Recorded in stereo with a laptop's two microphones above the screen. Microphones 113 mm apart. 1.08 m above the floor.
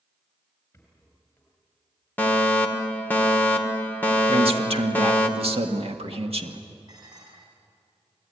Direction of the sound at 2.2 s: 15° left (ahead or behind).